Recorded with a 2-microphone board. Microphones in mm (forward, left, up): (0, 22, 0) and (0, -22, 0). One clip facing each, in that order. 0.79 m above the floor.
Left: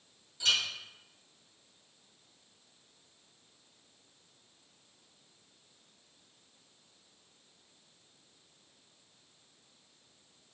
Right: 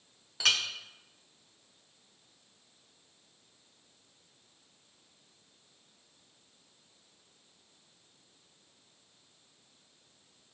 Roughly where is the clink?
Right.